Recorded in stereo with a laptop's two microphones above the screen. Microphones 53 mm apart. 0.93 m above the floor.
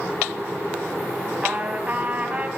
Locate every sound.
1.4 s a trumpet: 25° right (ahead or behind), 3.5 m